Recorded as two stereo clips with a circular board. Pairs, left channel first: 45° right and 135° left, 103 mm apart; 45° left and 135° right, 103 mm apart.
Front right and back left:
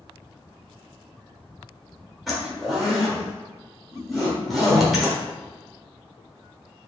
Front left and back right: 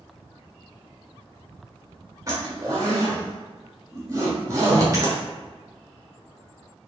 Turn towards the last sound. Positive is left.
turn(degrees=-135)